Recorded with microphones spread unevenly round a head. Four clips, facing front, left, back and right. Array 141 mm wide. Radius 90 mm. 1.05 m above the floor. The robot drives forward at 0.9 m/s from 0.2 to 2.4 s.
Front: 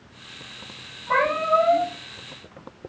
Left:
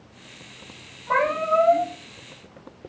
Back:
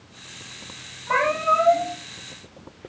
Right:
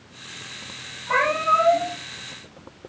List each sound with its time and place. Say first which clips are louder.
1.1 s a cat meowing: right 1 dB, even; 125° left, 5 m; by 1.9 s 130° left, 5.5 m